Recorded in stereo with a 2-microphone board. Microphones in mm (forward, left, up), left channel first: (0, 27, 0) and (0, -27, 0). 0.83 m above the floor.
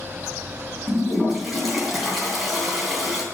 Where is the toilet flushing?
Centre (ahead or behind), 3 m.